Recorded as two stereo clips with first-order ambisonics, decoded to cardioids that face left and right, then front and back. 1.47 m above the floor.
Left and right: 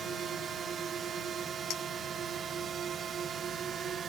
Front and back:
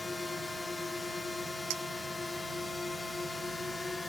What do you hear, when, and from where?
0.0 s a drone: 60° right
1.7 s a clink: 140° left